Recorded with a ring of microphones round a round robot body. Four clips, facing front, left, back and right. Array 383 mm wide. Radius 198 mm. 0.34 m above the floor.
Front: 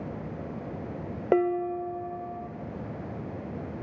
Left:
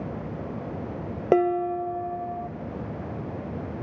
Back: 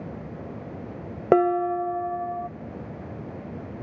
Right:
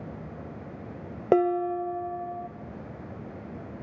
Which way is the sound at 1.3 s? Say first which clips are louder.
Left 1 dB, back 5 dB; 165° left.